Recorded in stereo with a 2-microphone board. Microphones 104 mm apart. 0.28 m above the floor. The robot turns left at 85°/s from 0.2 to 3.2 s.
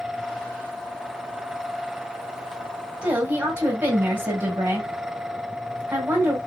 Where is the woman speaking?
10° right (ahead or behind), 1.6 m; by 6.4 s 20° right (ahead or behind), 1.6 m.